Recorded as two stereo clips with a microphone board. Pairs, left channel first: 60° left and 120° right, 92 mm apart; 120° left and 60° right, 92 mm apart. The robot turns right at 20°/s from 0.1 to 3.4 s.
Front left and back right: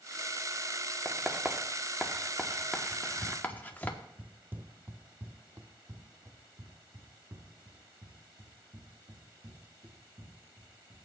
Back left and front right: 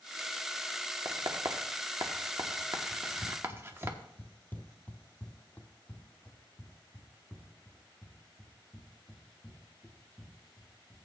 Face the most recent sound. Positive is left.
turn(degrees=-160)